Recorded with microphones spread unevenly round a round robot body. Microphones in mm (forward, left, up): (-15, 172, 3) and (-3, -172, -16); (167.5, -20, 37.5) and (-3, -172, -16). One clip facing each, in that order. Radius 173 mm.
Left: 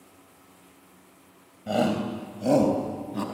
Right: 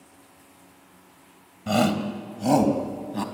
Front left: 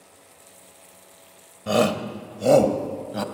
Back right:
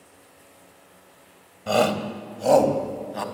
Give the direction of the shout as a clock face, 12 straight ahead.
1 o'clock.